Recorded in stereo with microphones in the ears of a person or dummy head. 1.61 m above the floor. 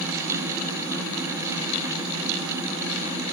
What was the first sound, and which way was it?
Only background noise.